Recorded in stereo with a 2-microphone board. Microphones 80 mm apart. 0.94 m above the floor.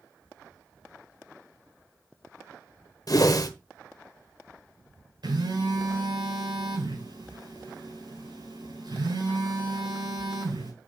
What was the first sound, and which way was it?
A whoosh, 55° left (ahead or behind).